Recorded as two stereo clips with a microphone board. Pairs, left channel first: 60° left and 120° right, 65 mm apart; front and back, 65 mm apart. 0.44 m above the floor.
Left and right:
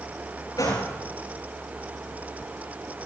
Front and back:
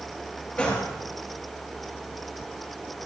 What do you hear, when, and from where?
0.6 s a gunshot: 65° left, 9 m